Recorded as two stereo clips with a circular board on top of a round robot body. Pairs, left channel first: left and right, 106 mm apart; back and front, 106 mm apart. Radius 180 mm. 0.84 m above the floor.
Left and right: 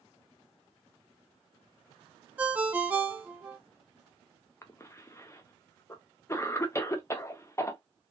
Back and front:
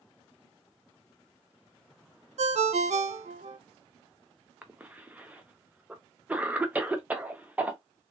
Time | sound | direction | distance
2.4 | a ringtone | 15° right | 0.5 m
4.6 | a cough | 60° left | 0.8 m